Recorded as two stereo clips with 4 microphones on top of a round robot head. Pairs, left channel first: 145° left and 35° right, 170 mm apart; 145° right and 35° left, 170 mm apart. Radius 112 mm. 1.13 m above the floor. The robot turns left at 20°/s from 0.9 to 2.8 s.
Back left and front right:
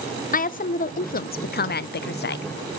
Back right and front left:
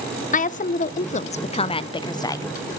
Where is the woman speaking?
Straight behind, 0.7 m; by 2.5 s 145° left, 0.7 m.